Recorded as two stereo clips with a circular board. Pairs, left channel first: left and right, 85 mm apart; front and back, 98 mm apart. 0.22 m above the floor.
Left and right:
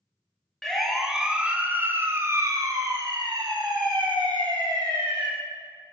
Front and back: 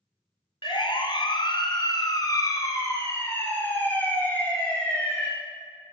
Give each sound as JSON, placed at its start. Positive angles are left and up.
{"t": 0.6, "sound": "a siren", "azimuth_deg": 5, "distance_m": 2.0}